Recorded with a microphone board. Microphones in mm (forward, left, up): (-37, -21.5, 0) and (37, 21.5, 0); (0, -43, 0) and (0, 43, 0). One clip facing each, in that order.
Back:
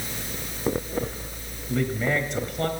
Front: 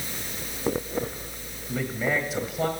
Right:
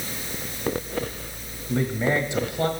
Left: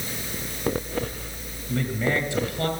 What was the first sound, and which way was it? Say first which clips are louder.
A man speaking: back 2 dB, right 2 dB; 50° right.